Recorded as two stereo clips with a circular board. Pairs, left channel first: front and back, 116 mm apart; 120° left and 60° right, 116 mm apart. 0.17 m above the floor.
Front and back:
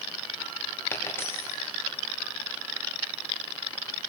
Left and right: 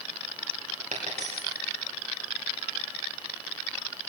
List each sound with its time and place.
0.9 s a dropped coin: 70° right, 5.5 m